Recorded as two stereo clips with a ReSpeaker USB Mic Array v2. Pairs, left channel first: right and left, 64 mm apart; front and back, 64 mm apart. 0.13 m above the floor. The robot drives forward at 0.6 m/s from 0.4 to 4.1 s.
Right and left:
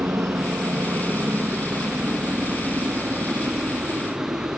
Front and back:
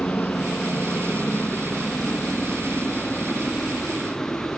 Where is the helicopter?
55° left; by 4.6 s 60° left.